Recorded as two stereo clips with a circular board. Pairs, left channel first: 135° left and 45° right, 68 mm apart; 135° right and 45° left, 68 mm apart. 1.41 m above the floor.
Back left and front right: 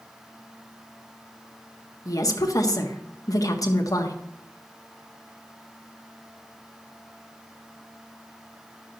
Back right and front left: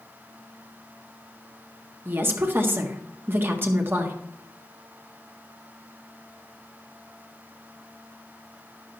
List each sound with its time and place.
2.0 s a woman speaking: 105° left, 1.5 m